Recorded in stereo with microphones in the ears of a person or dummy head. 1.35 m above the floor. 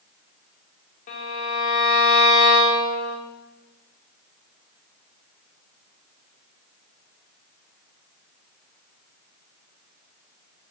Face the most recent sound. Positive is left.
turn(degrees=45)  # may be behind; listen again after turning